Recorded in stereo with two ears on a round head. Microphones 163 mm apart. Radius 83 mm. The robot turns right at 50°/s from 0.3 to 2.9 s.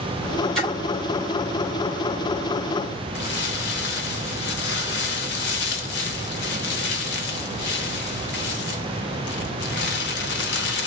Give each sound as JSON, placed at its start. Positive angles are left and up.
{"t": 0.6, "sound": "a splash", "side_deg": 5, "distance_m": 3.5}
{"t": 3.1, "sound": "crumpling", "side_deg": 65, "distance_m": 0.9}